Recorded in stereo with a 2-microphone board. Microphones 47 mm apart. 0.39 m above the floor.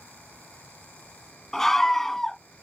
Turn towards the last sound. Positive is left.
turn(degrees=5)  # may be behind; listen again after turning